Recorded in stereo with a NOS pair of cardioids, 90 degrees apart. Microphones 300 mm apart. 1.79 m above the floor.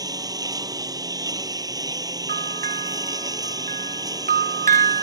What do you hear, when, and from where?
0.0 s a lawn mower: 10° right
2.3 s a bell: 30° right